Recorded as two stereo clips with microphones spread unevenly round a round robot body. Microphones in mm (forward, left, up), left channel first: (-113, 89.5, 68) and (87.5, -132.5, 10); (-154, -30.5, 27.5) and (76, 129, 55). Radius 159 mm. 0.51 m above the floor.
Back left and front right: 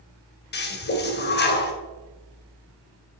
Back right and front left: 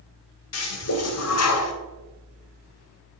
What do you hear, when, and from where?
0.5 s a toilet flushing: 170° right, 1.8 m